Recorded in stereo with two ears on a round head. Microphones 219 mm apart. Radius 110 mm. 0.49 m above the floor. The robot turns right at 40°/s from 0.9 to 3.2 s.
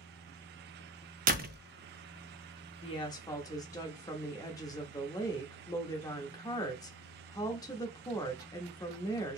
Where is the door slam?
35° right (ahead or behind), 0.5 m; by 1.6 s 45° right (ahead or behind), 0.5 m.